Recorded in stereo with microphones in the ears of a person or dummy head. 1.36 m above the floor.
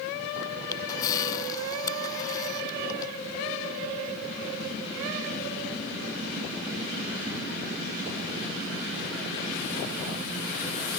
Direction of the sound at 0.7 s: 25° left (ahead or behind).